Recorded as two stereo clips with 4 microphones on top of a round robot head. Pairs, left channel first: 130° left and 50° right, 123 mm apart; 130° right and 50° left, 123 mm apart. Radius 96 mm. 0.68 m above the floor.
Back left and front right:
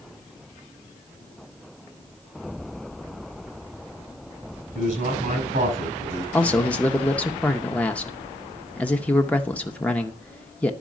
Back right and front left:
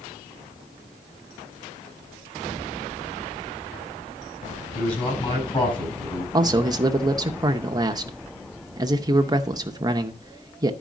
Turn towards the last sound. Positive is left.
turn(degrees=60)